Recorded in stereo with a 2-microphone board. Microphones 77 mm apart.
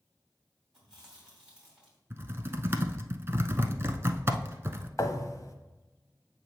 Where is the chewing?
10° right (ahead or behind), 3 m.